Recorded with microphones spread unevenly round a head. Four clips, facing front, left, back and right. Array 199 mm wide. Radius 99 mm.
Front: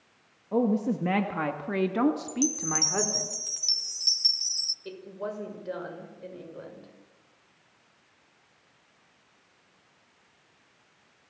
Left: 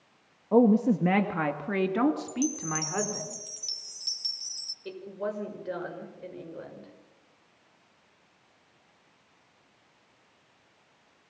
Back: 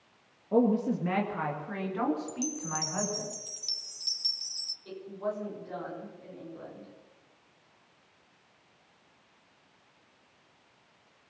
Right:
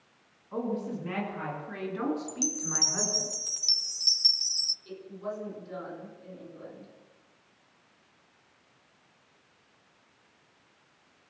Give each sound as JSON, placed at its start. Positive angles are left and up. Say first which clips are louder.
{"t": 0.5, "sound": "a woman speaking", "louder": "left 12 dB, even", "azimuth_deg": 100, "distance_m": 1.8}
{"t": 2.3, "sound": "a chime", "louder": "left 5 dB, front 6 dB", "azimuth_deg": -60, "distance_m": 0.7}
{"t": 4.8, "sound": "a woman speaking", "louder": "left 4 dB, back 1 dB", "azimuth_deg": 60, "distance_m": 6.0}